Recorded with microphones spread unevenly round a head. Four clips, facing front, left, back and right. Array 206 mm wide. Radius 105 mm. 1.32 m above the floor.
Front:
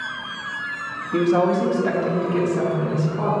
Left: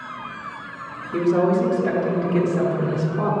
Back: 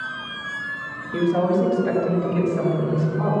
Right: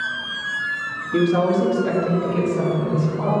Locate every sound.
1.1 s a woman speaking: 10° right, 2.5 m; by 3.3 s 40° left, 4.5 m